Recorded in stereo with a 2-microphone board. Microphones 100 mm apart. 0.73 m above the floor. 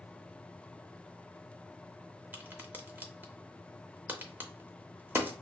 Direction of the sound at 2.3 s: 20° right (ahead or behind).